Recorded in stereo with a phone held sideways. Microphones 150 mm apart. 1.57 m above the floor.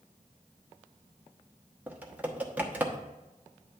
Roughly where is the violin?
I don't hear a violin.